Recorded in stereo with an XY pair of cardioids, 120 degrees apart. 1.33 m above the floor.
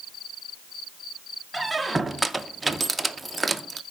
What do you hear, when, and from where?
1.5 s a squeak: 15° right, 0.7 m